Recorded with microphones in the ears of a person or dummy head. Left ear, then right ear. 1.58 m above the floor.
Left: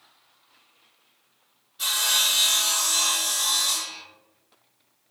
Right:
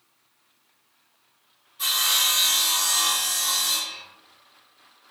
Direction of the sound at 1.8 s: 10° left (ahead or behind).